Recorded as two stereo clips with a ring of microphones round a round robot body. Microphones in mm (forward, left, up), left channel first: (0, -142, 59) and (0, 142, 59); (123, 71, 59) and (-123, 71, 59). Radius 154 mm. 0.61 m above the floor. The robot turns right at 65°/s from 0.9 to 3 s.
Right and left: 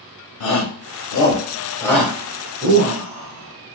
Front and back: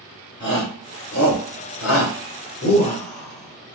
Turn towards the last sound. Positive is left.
turn(degrees=65)